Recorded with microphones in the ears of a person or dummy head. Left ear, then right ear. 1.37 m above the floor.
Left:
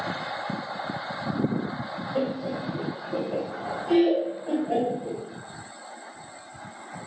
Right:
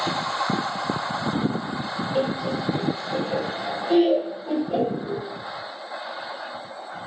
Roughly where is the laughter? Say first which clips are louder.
Right 3 dB; right.